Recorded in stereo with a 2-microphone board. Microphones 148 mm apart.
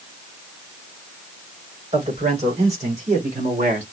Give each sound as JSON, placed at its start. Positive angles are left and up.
{"t": 1.9, "sound": "a man speaking", "side_deg": -45, "distance_m": 4.0}